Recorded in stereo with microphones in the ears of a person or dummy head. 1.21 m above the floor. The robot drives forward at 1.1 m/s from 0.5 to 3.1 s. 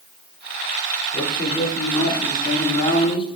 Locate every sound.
1.1 s a man speaking: 20° left (ahead or behind), 9 m; by 3.4 s 25° left (ahead or behind), 7 m